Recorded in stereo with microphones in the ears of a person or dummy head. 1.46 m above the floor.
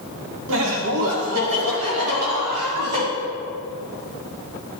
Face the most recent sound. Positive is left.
turn(degrees=-85)